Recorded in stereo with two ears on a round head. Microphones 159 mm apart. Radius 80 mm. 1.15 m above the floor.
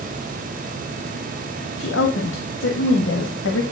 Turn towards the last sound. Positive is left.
turn(degrees=85)